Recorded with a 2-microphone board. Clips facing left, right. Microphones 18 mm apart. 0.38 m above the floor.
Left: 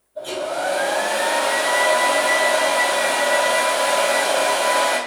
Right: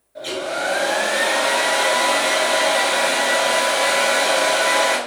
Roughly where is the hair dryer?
Right.